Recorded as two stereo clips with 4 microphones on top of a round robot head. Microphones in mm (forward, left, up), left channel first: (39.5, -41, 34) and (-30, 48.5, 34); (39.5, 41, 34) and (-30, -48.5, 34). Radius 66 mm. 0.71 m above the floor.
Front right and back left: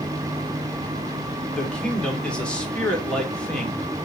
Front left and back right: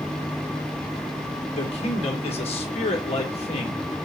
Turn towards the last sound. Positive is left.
turn(degrees=30)